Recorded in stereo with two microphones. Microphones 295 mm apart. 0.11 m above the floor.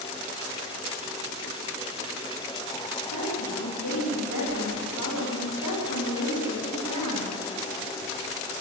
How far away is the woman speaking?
About 9.5 m.